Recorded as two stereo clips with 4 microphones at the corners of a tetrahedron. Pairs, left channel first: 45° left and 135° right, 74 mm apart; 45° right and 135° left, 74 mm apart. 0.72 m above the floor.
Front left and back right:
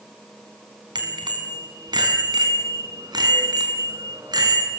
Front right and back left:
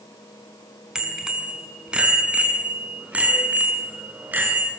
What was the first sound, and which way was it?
A bicycle bell, 145° right.